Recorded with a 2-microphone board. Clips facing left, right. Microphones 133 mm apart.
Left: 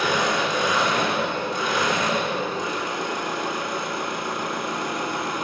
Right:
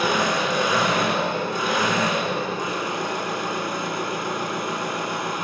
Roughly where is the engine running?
Right.